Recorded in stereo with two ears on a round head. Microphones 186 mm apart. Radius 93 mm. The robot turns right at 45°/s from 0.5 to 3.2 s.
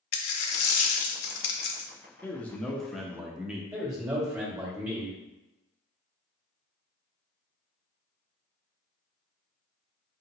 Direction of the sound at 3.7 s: 15° right (ahead or behind).